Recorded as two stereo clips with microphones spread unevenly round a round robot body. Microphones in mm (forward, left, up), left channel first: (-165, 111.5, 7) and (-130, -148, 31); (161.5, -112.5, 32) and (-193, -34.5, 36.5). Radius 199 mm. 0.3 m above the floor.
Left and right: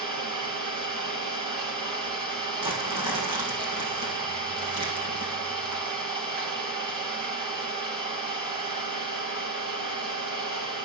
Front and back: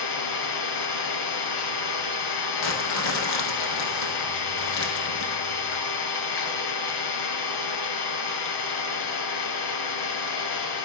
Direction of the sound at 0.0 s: 35° right.